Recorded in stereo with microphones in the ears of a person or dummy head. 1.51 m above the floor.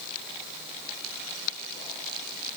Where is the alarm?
No alarm in this recording.